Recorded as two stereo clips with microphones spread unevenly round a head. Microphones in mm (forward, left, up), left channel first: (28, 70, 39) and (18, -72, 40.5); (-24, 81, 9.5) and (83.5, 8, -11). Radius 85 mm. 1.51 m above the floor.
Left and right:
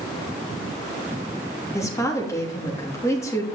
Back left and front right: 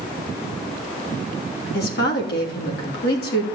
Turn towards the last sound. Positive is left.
turn(degrees=160)